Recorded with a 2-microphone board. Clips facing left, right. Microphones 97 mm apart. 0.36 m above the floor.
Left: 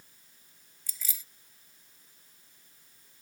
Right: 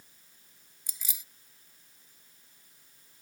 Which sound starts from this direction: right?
Keys jangling, at 0.9 s.